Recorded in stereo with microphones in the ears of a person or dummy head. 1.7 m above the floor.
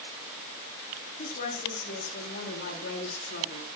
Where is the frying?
No frying in this recording.